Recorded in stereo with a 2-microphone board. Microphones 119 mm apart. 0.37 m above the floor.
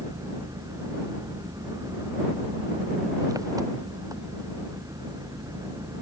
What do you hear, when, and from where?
0.0 s an engine running: 30° right (ahead or behind)